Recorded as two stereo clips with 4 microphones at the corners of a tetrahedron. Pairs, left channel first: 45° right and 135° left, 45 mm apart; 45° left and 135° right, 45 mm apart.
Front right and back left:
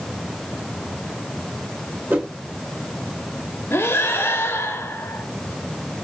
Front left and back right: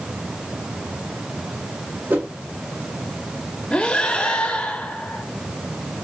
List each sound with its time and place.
2.1 s a whoosh: 175° right, 1.8 m
3.7 s breathing: 20° right, 0.8 m